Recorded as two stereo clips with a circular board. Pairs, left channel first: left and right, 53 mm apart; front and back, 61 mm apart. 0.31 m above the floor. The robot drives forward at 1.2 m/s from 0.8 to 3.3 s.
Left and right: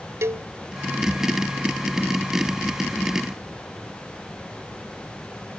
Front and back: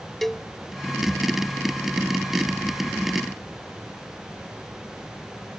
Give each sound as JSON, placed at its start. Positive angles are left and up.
{"t": 0.2, "sound": "a cowbell", "azimuth_deg": -85}